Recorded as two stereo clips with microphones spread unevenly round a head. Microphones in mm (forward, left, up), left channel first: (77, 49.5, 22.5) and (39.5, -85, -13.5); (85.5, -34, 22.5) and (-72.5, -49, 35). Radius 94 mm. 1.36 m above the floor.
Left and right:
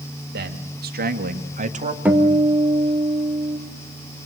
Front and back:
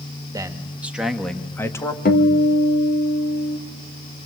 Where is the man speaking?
105° right, 1.8 m; by 1.9 s 65° right, 1.9 m.